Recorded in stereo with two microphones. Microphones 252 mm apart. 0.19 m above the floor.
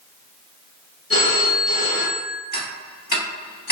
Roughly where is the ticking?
Left.